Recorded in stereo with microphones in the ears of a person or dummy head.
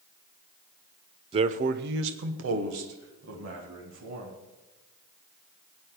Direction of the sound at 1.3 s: 30° right (ahead or behind).